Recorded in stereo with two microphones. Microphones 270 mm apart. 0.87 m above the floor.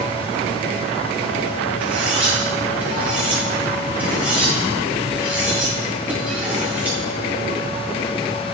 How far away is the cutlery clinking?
About 4 m.